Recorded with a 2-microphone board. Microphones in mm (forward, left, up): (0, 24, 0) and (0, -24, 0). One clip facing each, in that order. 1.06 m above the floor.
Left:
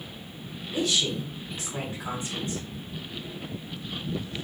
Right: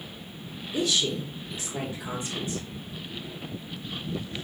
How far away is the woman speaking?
About 1.4 m.